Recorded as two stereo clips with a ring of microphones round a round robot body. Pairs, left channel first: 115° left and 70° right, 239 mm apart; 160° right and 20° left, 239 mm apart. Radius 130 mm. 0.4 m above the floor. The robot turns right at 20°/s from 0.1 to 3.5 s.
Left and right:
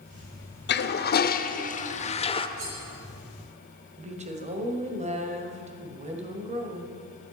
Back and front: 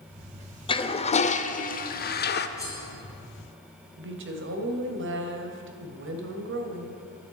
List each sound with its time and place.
0.7 s a toilet flushing: 140° left, 0.9 m; by 2.5 s 175° left, 0.9 m
2.6 s cutlery clinking: 80° right, 4 m; by 2.8 s 75° right, 4 m
4.0 s a woman speaking: 10° right, 2.0 m